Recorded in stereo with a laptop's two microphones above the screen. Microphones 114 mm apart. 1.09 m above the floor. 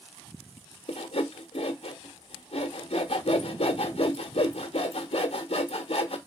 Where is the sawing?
60° left (ahead or behind), 1.0 m.